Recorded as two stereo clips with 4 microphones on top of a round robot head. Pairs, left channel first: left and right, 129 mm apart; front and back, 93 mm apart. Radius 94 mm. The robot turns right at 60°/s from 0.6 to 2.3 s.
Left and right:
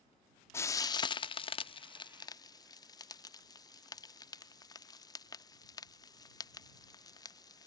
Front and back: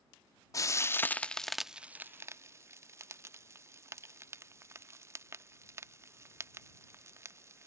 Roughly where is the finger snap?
No finger snap in this recording.